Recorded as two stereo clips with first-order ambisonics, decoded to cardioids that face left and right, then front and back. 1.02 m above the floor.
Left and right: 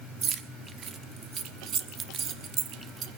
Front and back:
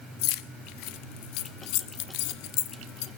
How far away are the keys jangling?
About 0.9 m.